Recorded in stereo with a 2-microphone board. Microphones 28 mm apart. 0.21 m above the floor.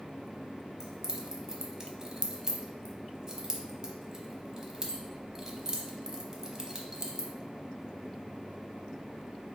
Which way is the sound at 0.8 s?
20° right (ahead or behind).